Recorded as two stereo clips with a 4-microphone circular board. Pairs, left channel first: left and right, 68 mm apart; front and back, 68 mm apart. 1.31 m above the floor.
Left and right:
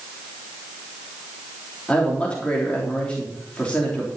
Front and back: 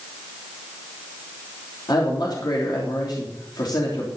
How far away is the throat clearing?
I don't hear throat clearing.